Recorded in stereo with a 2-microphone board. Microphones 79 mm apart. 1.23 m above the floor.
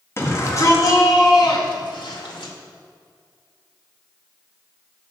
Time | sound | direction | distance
0.2 | a shout | 35° left (ahead or behind) | 2 m